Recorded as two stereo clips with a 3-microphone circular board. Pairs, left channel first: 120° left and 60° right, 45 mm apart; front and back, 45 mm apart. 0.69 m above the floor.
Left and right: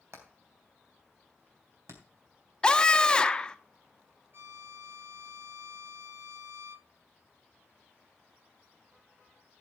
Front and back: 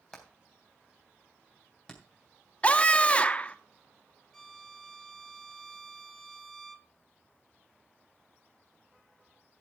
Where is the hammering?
70° right, 3 m.